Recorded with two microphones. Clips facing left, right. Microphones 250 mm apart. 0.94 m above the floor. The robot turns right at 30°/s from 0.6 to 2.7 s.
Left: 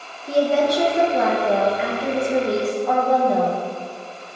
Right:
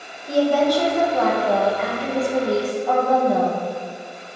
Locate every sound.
0.3 s a woman speaking: 25° left (ahead or behind), 0.7 m; by 3.6 s centre (ahead or behind), 0.7 m